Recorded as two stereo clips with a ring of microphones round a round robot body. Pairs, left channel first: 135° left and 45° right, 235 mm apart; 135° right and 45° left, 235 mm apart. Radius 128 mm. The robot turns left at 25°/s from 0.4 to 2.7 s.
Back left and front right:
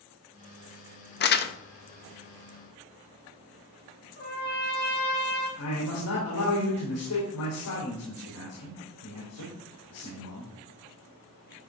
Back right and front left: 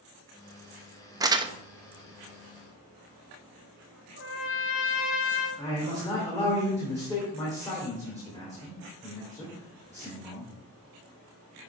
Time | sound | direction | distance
1.2 | crumpling | 115° left | 0.7 m
4.2 | a trumpet | 175° right | 1.8 m
5.6 | a man speaking | 150° left | 2.5 m